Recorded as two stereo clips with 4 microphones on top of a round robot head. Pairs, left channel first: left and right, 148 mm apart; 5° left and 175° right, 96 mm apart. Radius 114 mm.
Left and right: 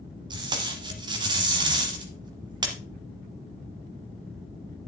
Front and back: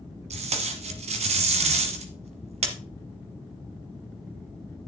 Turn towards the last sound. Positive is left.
turn(degrees=-155)